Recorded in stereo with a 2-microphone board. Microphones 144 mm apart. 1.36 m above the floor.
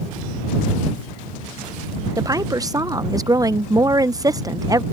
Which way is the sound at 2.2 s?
25° right (ahead or behind).